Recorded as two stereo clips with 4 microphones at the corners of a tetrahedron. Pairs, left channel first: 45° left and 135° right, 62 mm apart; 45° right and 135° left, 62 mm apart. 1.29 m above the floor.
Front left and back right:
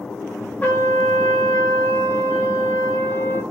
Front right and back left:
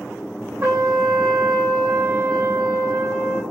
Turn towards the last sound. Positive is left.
turn(degrees=105)